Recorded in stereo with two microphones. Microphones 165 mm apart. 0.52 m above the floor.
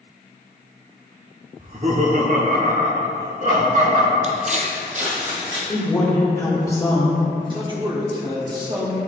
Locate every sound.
1.6 s laughter: 40° right (ahead or behind), 0.9 m; by 4.1 s 55° right (ahead or behind), 2.5 m
4.2 s footsteps: 50° right (ahead or behind), 0.8 m; by 5.6 s 45° right (ahead or behind), 1.8 m
5.7 s a woman speaking: 20° left (ahead or behind), 1.7 m
7.5 s a man speaking: 30° right (ahead or behind), 1.1 m